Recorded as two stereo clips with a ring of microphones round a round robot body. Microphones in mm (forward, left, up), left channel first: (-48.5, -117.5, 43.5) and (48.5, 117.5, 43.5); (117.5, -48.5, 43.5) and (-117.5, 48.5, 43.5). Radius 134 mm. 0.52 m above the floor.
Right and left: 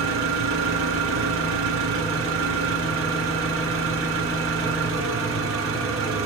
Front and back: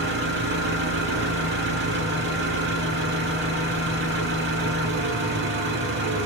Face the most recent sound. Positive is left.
turn(degrees=110)